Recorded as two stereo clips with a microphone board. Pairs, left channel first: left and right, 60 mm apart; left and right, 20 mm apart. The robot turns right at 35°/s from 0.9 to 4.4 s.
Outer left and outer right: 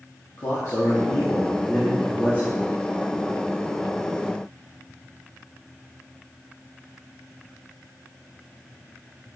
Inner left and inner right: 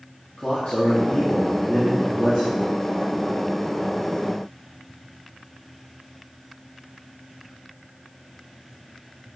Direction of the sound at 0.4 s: 105° left.